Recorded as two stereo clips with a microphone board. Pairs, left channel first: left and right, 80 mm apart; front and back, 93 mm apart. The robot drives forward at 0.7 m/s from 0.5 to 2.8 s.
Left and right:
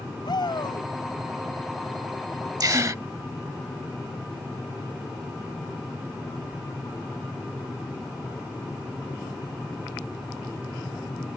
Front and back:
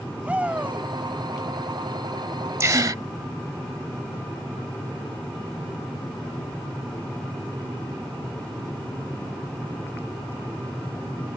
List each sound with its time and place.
0.2 s a shout: 105° left; by 0.9 s 115° left
2.6 s a gasp: 125° right; by 3.0 s 135° right